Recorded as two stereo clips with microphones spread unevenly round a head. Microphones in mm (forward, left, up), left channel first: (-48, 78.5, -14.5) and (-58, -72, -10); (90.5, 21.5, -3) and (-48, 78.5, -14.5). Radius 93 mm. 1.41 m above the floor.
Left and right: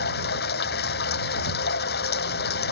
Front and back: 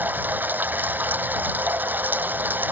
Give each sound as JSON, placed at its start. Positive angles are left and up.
{"t": 0.0, "sound": "running water", "azimuth_deg": 80}